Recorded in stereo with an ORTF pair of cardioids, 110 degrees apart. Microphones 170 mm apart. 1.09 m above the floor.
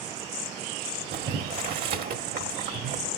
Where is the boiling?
65° right, 1.5 m.